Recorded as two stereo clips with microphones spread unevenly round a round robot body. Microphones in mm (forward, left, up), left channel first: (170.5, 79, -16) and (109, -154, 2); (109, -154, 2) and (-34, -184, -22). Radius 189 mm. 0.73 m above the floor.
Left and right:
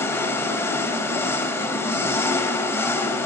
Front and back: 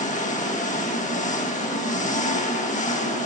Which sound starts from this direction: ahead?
An engine running, at 0.0 s.